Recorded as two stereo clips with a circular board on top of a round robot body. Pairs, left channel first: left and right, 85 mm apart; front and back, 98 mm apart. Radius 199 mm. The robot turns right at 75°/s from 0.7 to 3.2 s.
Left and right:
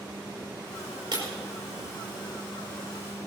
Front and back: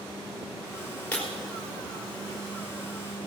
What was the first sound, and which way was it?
Breaking glass, 75° right.